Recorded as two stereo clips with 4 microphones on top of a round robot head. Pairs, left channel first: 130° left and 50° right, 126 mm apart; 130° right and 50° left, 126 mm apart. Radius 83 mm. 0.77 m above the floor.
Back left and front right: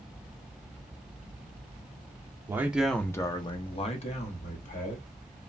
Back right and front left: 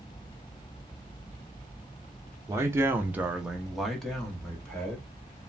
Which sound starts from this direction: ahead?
A man speaking, at 2.5 s.